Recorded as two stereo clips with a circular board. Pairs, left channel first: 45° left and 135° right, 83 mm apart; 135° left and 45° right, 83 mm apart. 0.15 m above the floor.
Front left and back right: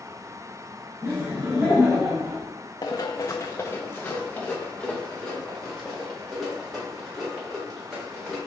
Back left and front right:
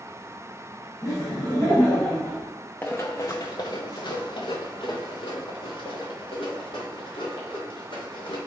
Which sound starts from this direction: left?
Running footsteps, at 2.8 s.